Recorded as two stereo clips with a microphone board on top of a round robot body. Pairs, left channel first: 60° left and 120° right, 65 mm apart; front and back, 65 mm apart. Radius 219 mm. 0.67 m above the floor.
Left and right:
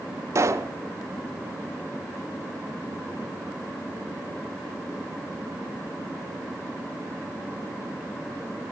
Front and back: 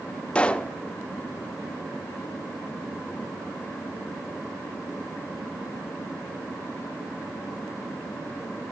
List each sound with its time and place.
0.3 s a pop: 75° right, 1.0 m